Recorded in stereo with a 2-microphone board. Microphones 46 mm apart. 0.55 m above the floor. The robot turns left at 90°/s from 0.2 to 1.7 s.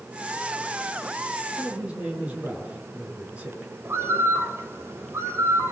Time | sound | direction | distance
1.6 | a man speaking | 40° right (ahead or behind) | 9 m
3.9 | a bird | 65° right (ahead or behind) | 2.5 m